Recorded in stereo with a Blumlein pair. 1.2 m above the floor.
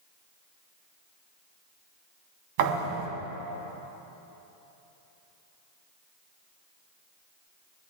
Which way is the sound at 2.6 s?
45° right.